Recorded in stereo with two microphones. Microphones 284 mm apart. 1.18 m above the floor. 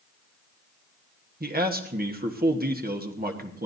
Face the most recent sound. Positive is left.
turn(degrees=-30)  # may be behind; listen again after turning